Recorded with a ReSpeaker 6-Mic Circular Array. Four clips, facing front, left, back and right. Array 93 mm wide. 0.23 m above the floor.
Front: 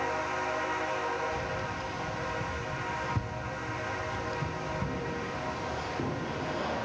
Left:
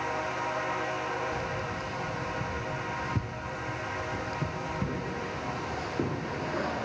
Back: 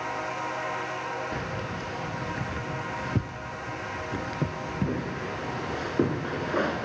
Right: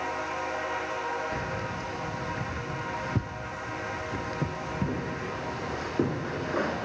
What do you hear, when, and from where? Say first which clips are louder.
1.3 s keys jangling: right 1 dB, back 1 dB; 155° right, 1.8 m